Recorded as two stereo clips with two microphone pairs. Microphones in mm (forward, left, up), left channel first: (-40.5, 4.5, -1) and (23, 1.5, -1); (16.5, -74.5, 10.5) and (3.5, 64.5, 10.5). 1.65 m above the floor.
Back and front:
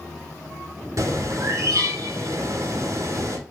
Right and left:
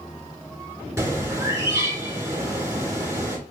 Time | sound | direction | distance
1.0 | a bird | 30° left | 3.5 m